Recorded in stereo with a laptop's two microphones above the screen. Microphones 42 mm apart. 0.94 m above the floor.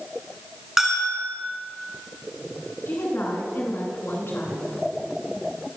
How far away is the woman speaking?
About 9.5 m.